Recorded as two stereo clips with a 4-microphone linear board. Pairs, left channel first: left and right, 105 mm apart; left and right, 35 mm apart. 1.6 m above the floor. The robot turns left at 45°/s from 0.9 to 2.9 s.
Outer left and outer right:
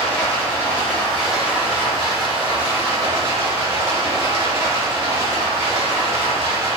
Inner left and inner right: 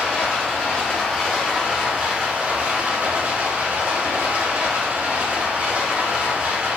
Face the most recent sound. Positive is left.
turn(degrees=-75)